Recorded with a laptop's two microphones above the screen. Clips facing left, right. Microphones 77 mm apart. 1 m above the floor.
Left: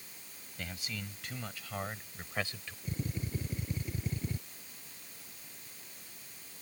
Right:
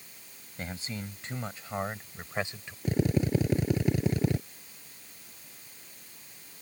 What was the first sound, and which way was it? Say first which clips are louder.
A man speaking: right 5 dB; 30° right (ahead or behind).